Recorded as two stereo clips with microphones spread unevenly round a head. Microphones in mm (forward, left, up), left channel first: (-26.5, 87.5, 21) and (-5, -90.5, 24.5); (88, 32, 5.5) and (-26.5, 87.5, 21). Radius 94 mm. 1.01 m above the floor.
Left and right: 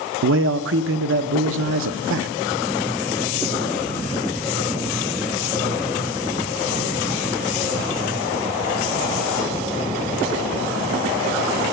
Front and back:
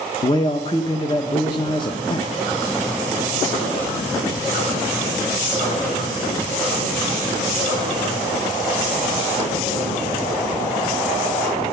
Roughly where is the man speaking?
Right.